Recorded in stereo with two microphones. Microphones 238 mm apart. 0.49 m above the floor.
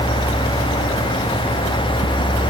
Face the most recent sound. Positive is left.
No sound to turn to.